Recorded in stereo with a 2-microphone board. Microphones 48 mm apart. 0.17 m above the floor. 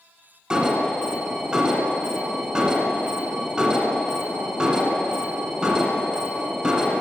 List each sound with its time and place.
0.5 s an alarm: 20° right (ahead or behind), 1.2 m